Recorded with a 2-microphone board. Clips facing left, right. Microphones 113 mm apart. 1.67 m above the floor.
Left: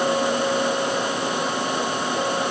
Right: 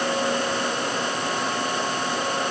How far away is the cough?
I don't hear a cough.